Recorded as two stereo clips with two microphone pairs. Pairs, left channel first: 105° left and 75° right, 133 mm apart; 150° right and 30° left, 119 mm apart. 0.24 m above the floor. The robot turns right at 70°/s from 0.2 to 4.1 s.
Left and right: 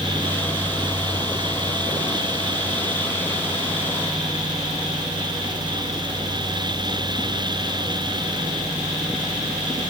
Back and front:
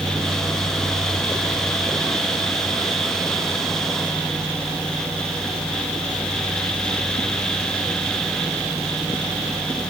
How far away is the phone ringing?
I don't hear a phone ringing.